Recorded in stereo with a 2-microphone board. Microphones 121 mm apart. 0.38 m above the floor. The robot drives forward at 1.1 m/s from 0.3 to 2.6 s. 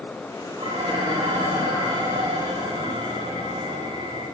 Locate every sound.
0.6 s dishes clattering: 75° right (ahead or behind), 8.5 m; by 4.2 s 60° right (ahead or behind), 9.5 m